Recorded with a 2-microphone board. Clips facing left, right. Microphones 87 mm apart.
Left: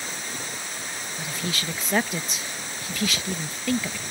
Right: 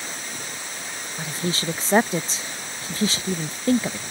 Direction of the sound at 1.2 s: 30° right (ahead or behind).